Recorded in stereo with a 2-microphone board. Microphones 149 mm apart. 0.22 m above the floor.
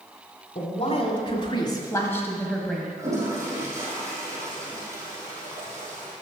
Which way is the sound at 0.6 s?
50° left (ahead or behind).